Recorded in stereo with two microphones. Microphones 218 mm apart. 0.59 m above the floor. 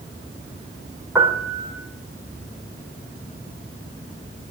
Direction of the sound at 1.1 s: 10° right (ahead or behind).